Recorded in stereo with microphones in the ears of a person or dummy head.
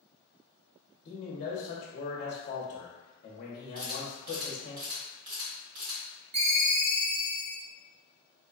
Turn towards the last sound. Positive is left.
turn(degrees=-45)  # may be behind; listen again after turning